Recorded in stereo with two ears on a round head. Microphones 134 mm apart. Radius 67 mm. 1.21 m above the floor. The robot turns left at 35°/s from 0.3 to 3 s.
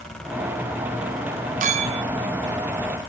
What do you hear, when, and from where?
1.6 s a clink: 50° right (ahead or behind), 0.8 m; by 2.0 s 40° right (ahead or behind), 0.8 m